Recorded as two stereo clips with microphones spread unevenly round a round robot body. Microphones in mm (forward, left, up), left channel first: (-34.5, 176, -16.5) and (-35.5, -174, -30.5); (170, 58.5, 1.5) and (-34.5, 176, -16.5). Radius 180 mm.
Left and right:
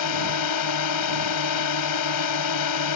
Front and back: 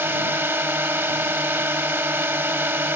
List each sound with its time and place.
0.0 s a drone: 70° left